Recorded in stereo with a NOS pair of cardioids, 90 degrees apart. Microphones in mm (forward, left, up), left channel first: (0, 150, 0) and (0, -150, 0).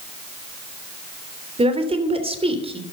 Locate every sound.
1.6 s a woman speaking: 20° right, 3.5 m